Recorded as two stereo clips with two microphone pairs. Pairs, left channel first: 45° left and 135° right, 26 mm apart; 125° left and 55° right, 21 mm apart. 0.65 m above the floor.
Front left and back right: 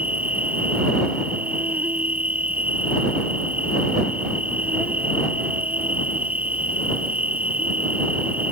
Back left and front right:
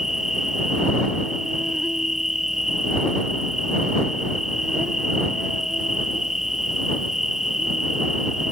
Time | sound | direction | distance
0.0 | an insect | 125° right | ?